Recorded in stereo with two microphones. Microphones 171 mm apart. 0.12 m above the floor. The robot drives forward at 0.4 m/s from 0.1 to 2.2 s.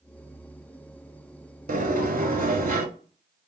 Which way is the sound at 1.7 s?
55° right (ahead or behind).